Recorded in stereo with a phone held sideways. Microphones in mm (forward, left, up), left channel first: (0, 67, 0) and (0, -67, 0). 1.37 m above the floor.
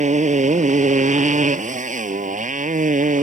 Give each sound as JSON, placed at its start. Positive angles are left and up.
{"t": 0.0, "sound": "a motorcycle", "side_deg": -70}